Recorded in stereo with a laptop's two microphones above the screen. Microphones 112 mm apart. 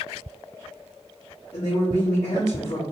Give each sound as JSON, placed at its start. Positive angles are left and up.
{"t": 1.5, "sound": "a woman speaking", "side_deg": 60, "distance_m": 1.6}